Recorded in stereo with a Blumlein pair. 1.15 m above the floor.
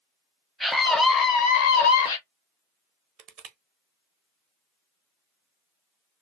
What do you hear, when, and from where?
0.6 s a scream: straight ahead, 0.7 m; by 2.2 s 75° left, 1.0 m
3.2 s crushing: 35° right, 0.7 m